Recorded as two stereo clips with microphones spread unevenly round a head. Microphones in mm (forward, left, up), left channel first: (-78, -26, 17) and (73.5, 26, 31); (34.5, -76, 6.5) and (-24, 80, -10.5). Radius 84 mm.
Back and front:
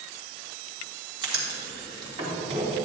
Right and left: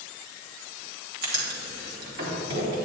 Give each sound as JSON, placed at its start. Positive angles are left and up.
{"t": 1.2, "sound": "writing", "azimuth_deg": 80, "distance_m": 2.5}